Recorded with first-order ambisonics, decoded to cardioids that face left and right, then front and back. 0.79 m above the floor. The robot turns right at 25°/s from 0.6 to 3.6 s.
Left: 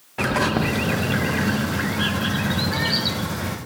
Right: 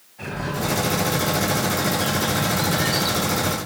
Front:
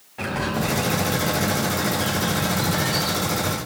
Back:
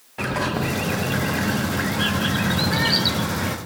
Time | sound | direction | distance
0.2 | a bird | 105° left | 0.7 m